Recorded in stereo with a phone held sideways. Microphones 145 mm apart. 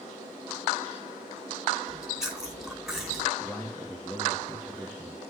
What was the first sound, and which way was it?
Chewing, 5° right (ahead or behind).